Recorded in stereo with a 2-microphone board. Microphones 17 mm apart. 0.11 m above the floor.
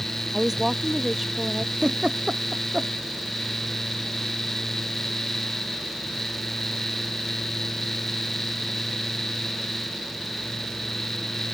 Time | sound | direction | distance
0.3 | a woman speaking | 15° right (ahead or behind) | ?
1.8 | a giggle | 55° right (ahead or behind) | ?